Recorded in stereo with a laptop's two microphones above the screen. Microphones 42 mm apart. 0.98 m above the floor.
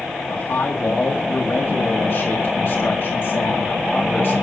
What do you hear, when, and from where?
0.3 s a man speaking: 60° left (ahead or behind), 2.0 m